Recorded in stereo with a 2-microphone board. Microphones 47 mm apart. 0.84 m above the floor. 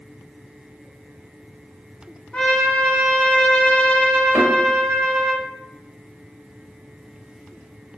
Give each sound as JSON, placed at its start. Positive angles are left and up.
{"t": 2.3, "sound": "a trumpet", "side_deg": 20, "distance_m": 0.6}
{"t": 4.3, "sound": "a thud", "side_deg": -25, "distance_m": 1.4}